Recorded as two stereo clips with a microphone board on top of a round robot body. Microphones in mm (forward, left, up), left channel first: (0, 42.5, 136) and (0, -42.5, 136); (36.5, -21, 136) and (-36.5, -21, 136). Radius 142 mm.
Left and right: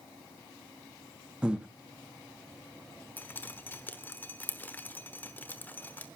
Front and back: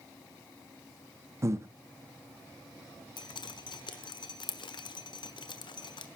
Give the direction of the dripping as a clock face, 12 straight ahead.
11 o'clock.